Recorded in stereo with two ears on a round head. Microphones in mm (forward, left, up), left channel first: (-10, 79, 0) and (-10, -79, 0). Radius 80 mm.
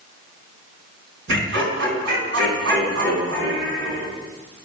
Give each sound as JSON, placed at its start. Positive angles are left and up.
{"t": 1.3, "sound": "laughter", "side_deg": -70, "distance_m": 4.0}